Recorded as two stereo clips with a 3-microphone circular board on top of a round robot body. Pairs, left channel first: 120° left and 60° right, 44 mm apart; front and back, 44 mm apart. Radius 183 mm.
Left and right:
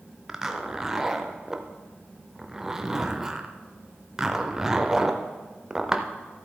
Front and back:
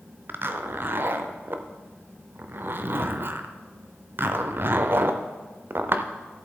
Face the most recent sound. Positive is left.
turn(degrees=-140)